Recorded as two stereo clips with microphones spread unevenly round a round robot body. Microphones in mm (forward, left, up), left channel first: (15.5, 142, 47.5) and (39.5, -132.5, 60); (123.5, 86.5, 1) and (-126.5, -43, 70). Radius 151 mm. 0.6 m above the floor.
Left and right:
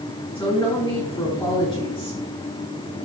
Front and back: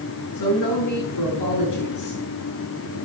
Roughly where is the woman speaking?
Ahead.